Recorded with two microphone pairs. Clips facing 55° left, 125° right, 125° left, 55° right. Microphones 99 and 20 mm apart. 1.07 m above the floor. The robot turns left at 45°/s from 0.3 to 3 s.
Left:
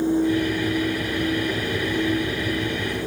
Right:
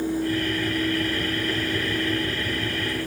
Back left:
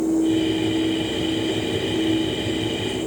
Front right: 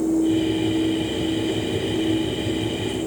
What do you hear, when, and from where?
Only background noise.